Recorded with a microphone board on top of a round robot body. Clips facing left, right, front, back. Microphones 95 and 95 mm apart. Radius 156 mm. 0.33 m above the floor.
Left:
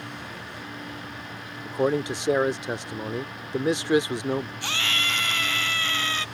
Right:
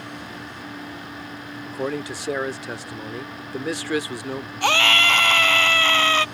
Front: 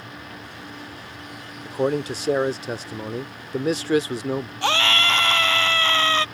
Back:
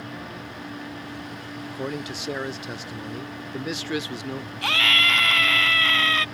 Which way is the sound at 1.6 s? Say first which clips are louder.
Left 4 dB, front 9 dB; 30° left.